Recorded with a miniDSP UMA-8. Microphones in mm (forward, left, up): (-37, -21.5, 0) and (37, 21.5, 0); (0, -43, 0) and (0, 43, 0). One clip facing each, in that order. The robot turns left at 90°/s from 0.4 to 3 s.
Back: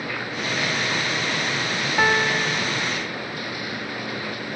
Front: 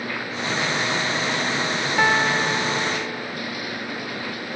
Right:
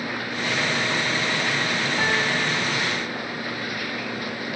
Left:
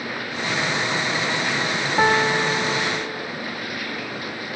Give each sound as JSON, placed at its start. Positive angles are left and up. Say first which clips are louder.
{"t": 2.0, "sound": "a piano", "louder": "front 1 dB, left 8 dB", "azimuth_deg": 120, "distance_m": 1.0}